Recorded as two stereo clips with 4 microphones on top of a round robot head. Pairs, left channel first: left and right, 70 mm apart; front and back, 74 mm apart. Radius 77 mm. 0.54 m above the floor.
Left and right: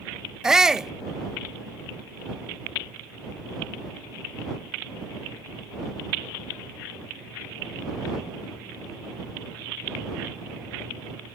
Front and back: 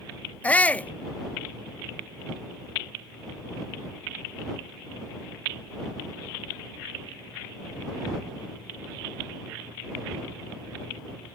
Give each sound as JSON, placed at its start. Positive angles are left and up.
{"t": 0.4, "sound": "a shout", "azimuth_deg": -20}